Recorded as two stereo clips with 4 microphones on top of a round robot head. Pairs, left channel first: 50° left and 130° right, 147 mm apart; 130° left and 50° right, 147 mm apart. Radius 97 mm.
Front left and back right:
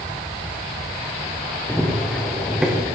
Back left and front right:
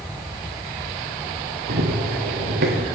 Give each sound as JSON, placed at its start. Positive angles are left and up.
{"t": 1.7, "sound": "running footsteps", "azimuth_deg": -30, "distance_m": 4.5}